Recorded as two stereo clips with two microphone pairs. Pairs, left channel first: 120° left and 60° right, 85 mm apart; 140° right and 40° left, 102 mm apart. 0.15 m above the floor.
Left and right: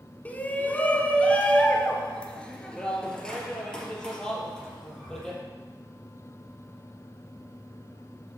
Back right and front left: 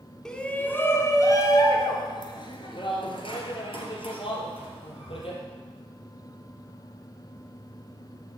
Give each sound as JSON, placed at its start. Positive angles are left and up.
{"t": 0.2, "sound": "a shout", "azimuth_deg": 145, "distance_m": 1.1}